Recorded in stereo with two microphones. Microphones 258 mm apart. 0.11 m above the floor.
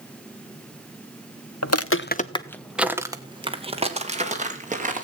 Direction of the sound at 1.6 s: 75° left (ahead or behind).